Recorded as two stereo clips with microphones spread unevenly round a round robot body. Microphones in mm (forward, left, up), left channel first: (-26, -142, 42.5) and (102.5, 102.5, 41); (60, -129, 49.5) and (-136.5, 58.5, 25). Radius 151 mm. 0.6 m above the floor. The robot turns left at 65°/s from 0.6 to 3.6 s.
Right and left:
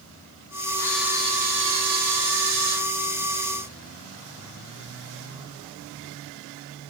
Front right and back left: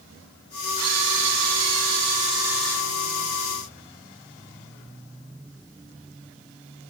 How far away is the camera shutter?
About 5.5 m.